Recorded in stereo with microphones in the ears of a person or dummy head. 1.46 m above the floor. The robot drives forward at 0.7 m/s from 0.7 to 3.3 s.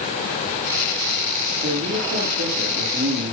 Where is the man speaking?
60° right (ahead or behind), 4 m; by 3.3 s 80° right, 3.5 m.